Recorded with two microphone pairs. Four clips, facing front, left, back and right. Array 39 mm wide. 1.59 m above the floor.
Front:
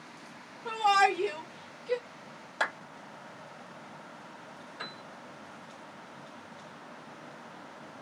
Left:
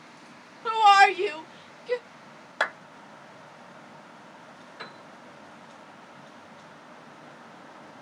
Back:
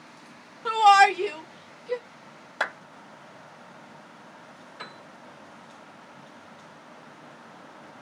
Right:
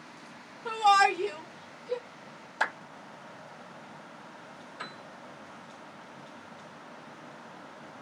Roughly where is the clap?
Left.